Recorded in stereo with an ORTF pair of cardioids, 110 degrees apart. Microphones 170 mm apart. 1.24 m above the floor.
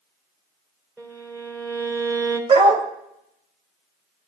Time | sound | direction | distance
1.0 | a violin | 15° right | 4 m
2.5 | a dog barking | 40° right | 2.5 m